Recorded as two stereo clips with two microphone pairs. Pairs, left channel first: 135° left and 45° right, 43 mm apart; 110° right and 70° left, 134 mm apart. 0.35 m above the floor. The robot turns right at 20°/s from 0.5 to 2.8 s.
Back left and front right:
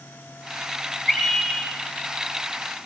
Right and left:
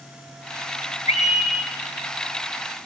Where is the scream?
140° right, 8 m; by 1.7 s 125° right, 8 m.